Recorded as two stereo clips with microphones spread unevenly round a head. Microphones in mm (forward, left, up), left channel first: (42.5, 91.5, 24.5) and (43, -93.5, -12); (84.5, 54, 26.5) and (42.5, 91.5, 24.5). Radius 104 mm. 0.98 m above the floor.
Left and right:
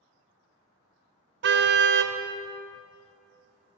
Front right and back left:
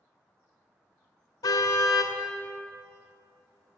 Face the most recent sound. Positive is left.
turn(degrees=-65)